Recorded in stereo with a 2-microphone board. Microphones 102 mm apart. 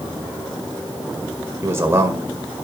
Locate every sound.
1.6 s a man speaking: 25° right (ahead or behind), 2 m